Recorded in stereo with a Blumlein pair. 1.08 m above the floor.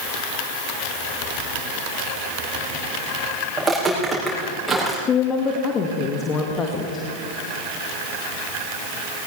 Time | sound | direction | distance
3.6 | footsteps | 10° right | 5.5 m
5.1 | a woman speaking | 25° left | 1.6 m